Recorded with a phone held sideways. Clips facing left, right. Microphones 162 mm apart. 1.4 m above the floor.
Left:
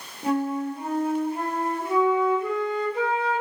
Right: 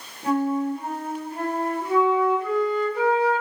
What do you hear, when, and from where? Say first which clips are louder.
0.2 s a flute: right 2 dB; 25° left (ahead or behind), 0.9 m